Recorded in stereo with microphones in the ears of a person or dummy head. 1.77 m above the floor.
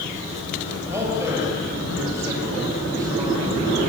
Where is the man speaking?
20° right (ahead or behind), 9.5 m; by 3.8 s 25° right (ahead or behind), 7.5 m.